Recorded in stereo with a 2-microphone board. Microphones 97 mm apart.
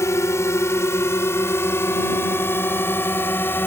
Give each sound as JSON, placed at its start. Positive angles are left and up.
{"t": 0.0, "sound": "a drone", "side_deg": 30}